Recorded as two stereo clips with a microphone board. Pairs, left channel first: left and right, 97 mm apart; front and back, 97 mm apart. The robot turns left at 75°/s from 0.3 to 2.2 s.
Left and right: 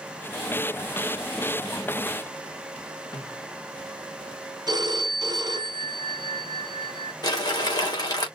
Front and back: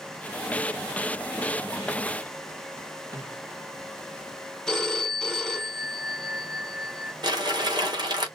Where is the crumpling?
135° left, 4 m.